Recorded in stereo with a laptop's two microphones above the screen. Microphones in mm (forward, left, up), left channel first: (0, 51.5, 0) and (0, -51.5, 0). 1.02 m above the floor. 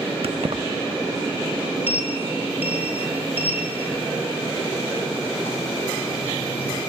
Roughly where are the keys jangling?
Right.